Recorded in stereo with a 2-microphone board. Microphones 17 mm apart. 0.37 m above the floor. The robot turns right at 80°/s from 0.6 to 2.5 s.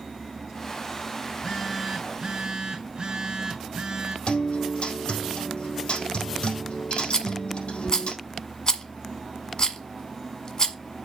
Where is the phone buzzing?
140° left, 3 m; by 4.2 s 120° right, 3 m.